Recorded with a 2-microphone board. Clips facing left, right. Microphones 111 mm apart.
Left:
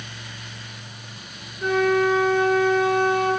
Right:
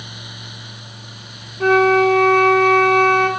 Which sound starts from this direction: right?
A flute, at 1.6 s.